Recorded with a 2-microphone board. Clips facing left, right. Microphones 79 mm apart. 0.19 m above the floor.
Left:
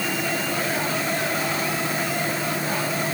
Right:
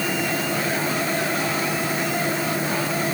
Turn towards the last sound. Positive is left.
No sound to turn to.